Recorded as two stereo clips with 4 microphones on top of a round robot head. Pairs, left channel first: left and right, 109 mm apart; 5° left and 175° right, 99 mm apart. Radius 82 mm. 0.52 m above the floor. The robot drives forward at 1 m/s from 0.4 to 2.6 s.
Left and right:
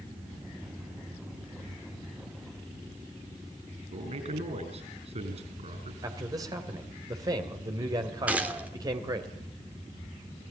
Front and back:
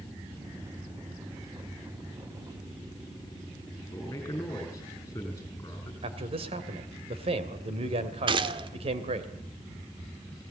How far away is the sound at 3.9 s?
About 6.5 m.